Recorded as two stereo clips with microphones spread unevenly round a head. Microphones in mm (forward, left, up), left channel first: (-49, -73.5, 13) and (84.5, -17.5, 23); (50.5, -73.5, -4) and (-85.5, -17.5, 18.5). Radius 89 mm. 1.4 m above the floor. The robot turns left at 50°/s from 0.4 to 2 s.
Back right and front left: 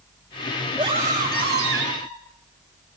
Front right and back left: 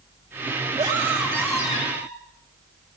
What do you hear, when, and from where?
0.8 s a scream: 95° left, 8.5 m; by 2.1 s 30° left, 8.5 m